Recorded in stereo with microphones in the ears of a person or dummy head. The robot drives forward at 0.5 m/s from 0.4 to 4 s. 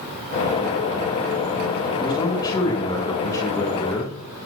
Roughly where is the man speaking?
Left.